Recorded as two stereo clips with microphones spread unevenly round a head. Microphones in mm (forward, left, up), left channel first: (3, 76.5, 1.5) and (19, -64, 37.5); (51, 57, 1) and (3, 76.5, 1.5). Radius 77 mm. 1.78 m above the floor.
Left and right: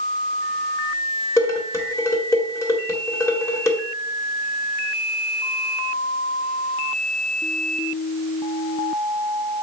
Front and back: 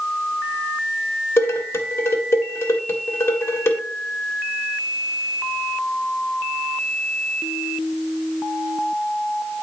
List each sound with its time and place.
1.4 s dishes clattering: 20° left, 1.8 m